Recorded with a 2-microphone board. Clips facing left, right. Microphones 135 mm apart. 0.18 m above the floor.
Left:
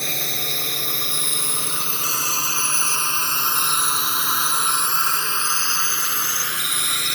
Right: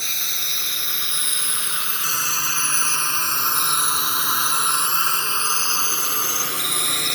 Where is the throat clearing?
No throat clearing in this recording.